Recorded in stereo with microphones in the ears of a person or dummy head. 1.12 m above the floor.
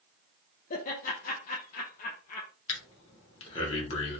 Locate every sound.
0.7 s laughter: 50° left (ahead or behind), 0.5 m
2.7 s breathing: 35° left (ahead or behind), 1.0 m